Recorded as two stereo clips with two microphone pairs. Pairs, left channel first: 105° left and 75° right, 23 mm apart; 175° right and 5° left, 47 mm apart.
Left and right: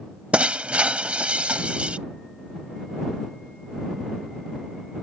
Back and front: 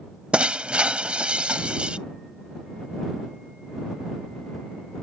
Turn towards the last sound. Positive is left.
turn(degrees=-60)